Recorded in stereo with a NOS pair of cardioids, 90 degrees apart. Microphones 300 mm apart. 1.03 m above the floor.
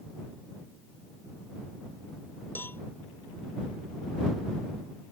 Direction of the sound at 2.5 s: 5° left.